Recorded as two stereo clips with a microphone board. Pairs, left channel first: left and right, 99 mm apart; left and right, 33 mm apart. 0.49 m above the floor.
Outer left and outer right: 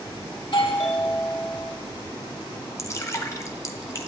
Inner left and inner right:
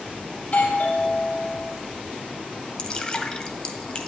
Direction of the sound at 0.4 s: 50° left (ahead or behind).